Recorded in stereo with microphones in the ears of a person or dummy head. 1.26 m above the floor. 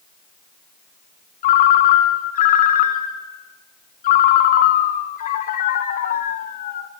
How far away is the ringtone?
About 1.3 m.